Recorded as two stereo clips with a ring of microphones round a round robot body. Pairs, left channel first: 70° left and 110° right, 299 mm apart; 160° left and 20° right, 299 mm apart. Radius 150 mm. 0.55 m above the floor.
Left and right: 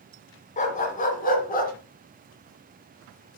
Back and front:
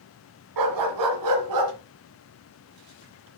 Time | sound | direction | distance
0.6 | a dog barking | straight ahead | 1.7 m